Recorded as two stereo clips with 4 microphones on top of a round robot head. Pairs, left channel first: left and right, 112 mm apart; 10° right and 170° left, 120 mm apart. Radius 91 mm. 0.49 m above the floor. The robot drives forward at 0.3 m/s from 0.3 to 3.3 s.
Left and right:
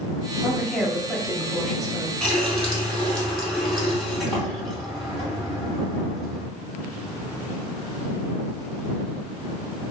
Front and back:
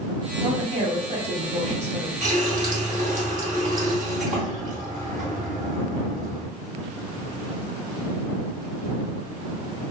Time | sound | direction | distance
0.4 | a woman speaking | straight behind | 1.0 m
2.2 | a running tap | 175° left | 1.8 m